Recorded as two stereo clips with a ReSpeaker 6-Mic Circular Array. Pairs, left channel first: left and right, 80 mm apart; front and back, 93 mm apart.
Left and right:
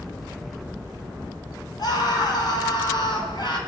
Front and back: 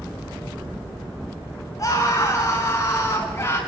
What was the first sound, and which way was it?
A scream, 55° left.